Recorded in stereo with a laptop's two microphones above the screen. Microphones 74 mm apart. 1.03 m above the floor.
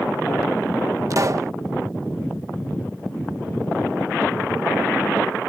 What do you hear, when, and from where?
1.1 s a pop: 45° right (ahead or behind)